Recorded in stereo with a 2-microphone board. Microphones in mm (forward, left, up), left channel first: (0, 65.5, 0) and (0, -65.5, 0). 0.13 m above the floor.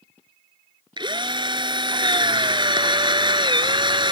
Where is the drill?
35° right (ahead or behind).